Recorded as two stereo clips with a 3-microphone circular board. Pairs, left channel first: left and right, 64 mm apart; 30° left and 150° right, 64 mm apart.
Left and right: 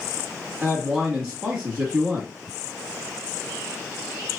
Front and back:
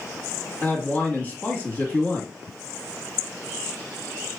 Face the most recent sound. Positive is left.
turn(degrees=-5)